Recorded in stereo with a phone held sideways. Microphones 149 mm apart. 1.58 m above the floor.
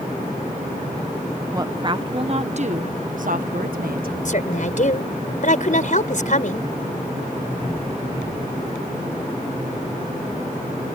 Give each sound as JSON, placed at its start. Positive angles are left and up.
{"t": 1.5, "sound": "a woman speaking", "side_deg": -25}
{"t": 4.2, "sound": "a woman speaking", "side_deg": 60}